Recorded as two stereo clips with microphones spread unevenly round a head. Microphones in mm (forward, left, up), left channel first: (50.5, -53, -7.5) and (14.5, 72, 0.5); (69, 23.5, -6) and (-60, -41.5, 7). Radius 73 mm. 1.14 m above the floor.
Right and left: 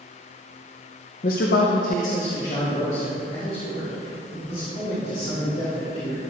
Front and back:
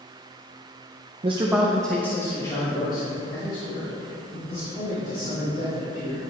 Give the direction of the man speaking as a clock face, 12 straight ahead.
3 o'clock.